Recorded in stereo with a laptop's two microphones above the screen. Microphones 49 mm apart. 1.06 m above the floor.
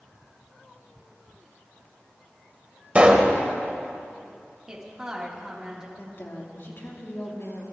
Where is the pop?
25° right (ahead or behind), 1.5 m.